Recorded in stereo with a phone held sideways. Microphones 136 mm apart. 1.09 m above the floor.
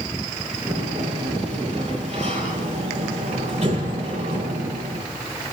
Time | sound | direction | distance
0.7 | a sliding door | 50° right (ahead or behind) | 7.5 m